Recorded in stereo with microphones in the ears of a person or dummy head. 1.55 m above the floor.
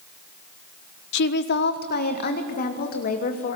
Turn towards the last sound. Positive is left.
turn(degrees=45)  # may be behind; listen again after turning